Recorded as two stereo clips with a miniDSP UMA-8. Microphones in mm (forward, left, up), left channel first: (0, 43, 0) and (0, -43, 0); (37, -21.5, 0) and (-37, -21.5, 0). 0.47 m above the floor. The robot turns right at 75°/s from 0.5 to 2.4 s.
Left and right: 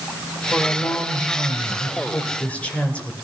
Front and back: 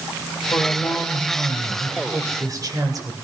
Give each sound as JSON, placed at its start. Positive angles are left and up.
{"t": 0.5, "sound": "a woman speaking", "azimuth_deg": 20, "distance_m": 2.0}